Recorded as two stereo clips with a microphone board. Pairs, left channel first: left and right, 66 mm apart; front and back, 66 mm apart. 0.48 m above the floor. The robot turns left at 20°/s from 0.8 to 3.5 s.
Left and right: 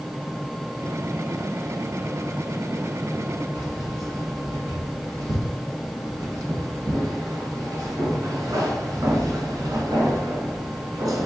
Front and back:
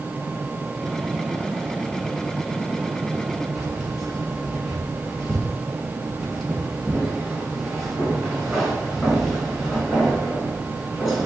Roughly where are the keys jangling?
Right.